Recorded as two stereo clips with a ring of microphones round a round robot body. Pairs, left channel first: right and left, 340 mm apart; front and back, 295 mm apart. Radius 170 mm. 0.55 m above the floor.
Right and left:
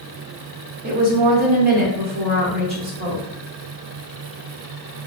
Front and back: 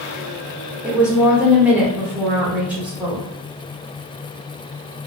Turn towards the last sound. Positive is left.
turn(degrees=100)